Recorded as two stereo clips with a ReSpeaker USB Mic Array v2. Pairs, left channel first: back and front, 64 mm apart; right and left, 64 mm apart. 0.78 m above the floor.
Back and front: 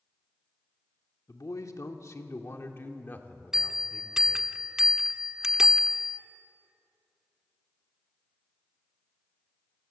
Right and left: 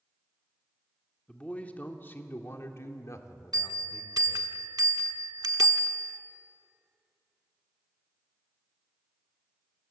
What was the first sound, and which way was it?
A man speaking, 160° right.